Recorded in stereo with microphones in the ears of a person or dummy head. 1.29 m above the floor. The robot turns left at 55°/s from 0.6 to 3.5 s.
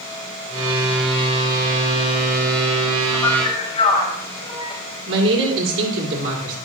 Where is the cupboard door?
I don't hear a cupboard door.